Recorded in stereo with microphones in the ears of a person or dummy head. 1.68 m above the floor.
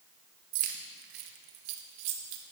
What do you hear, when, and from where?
0.5 s keys jangling: 40° right (ahead or behind), 1.1 m; by 2.4 s 75° right (ahead or behind), 2 m